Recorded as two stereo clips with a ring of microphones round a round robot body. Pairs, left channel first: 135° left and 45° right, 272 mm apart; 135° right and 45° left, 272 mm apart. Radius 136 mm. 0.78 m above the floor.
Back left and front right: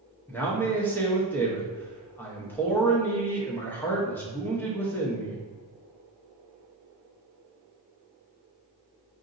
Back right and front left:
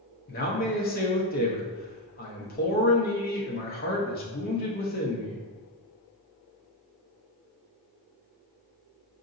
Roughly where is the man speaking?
Behind right.